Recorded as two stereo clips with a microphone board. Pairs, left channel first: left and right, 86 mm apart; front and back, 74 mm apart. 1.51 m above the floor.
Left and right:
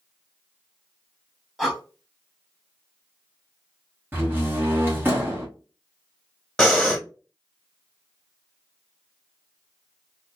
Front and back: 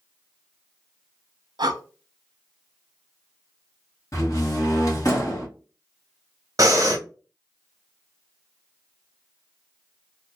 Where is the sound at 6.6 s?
170° left, 0.9 m.